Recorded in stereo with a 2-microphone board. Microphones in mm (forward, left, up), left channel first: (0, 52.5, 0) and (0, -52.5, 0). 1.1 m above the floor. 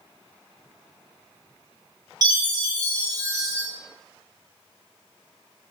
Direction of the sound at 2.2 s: 35° right (ahead or behind).